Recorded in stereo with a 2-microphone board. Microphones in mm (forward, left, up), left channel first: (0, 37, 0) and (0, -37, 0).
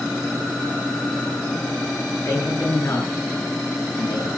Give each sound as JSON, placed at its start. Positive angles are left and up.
{"t": 2.1, "sound": "a man speaking", "side_deg": 40, "distance_m": 9.0}